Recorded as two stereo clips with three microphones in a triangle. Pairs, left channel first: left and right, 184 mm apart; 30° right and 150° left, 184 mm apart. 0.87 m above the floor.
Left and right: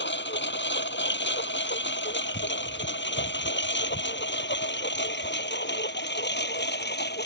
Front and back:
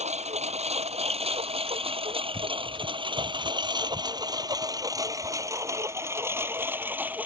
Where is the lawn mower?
95° left; by 7.3 s 70° left.